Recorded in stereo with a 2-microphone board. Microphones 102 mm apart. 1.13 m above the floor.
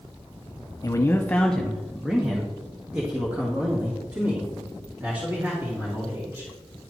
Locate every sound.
0.8 s a man speaking: 35° left (ahead or behind), 0.5 m; by 6.5 s 25° right (ahead or behind), 3 m